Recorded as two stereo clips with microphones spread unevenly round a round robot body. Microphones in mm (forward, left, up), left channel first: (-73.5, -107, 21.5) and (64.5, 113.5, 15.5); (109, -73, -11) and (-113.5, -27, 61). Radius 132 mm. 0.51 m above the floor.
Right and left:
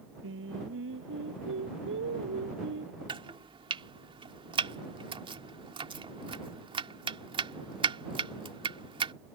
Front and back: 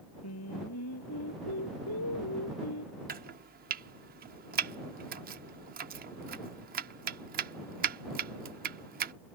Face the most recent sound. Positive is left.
turn(degrees=115)